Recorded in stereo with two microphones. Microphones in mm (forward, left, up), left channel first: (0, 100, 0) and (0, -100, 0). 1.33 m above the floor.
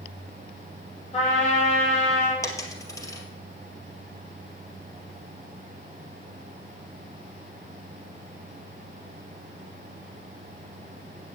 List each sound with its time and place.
1.1 s a trumpet: 30° left (ahead or behind), 6.5 m
2.4 s a dropped coin: 15° left (ahead or behind), 2 m